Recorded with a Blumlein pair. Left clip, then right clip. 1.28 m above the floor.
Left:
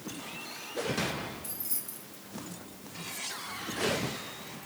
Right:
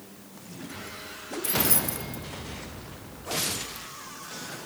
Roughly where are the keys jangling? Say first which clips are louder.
Right 16 dB; ahead right.